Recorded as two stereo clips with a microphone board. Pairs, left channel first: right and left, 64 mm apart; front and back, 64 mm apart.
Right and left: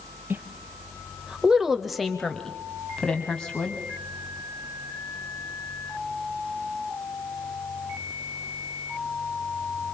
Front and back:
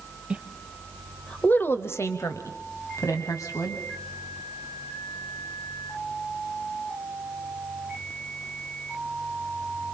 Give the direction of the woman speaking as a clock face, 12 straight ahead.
8 o'clock.